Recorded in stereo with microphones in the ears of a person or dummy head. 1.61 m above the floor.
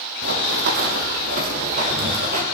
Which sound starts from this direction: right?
Running footsteps, at 0.2 s.